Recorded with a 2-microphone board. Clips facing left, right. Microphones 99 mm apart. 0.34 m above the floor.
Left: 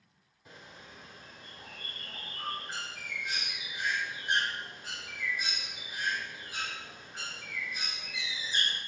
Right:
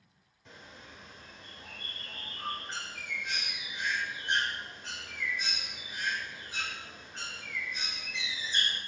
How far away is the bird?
About 1.1 m.